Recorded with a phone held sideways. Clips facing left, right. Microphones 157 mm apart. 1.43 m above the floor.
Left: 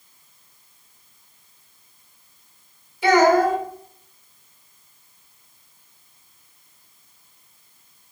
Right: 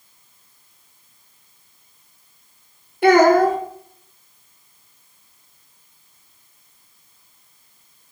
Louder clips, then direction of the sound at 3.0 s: Right 3 dB; 60° right (ahead or behind).